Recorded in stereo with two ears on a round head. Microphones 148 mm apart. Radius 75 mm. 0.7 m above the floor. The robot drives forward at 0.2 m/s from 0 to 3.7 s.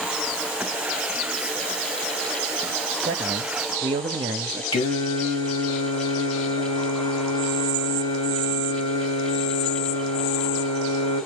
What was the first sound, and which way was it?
A man speaking, 35° right (ahead or behind).